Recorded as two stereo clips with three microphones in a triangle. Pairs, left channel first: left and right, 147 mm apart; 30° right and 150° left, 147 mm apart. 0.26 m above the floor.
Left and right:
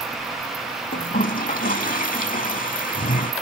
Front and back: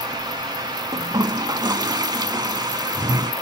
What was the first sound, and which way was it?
A toilet flushing, 90° left.